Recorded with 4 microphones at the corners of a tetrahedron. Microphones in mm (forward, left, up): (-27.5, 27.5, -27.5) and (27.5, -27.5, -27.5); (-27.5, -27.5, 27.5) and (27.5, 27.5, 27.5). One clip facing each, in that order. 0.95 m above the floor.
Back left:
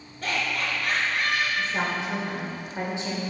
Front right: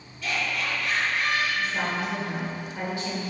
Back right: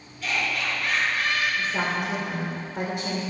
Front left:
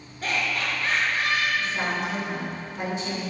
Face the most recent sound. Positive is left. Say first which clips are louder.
# even, back right 1 dB
turn(degrees=-155)